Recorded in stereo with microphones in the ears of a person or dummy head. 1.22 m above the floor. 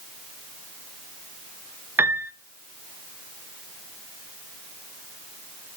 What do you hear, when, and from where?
2.0 s a piano: 15° right (ahead or behind), 0.9 m